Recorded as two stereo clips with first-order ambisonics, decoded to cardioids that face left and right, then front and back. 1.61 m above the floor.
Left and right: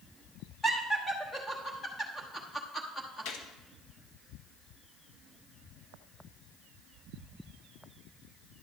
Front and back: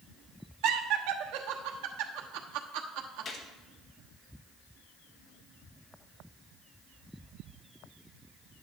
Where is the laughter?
170° left, 1.0 m.